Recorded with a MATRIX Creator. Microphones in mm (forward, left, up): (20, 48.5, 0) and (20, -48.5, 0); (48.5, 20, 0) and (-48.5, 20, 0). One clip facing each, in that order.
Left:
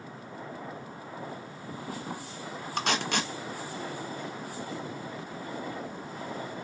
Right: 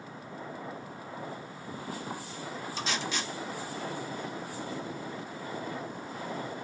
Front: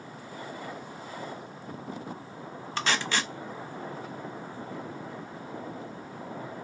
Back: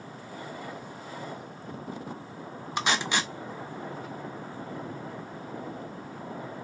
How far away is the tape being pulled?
About 0.7 m.